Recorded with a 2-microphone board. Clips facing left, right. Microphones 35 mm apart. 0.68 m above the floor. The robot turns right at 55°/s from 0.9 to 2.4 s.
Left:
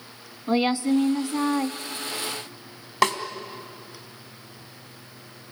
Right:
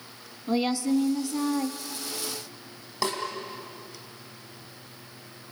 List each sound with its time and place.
0.5 s a woman speaking: 80° left, 0.7 m; by 1.8 s 130° left, 0.7 m
3.0 s a snare drum: 60° left (ahead or behind), 2 m